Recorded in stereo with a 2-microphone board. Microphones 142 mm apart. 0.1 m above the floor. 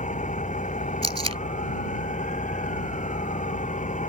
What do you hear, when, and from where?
0.0 s an engine running: 60° left (ahead or behind)
1.0 s tape being pulled: 45° right (ahead or behind)